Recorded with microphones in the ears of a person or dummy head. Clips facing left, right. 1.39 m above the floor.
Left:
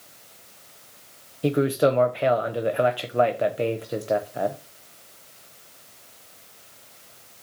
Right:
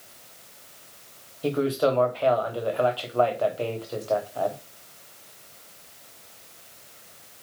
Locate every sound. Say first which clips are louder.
1.4 s a man speaking: left 3 dB; 20° left (ahead or behind), 0.6 m